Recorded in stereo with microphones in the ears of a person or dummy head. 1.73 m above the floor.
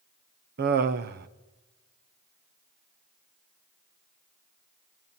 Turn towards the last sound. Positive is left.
turn(degrees=-50)  # may be behind; listen again after turning